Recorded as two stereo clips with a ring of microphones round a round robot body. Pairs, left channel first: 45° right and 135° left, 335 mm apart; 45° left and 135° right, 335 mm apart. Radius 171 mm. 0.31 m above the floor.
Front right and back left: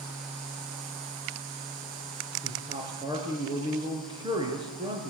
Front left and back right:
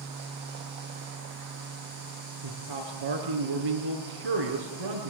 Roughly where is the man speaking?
Behind right.